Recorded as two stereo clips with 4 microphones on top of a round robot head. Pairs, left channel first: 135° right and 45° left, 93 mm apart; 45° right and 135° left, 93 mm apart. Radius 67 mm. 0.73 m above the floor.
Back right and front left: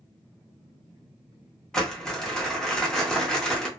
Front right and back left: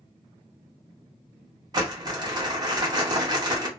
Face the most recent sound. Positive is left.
turn(degrees=145)